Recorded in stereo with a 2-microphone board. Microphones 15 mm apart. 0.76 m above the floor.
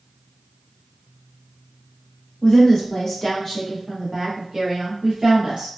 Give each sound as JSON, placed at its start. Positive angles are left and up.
{"t": 2.4, "sound": "a woman speaking", "side_deg": 50, "distance_m": 1.4}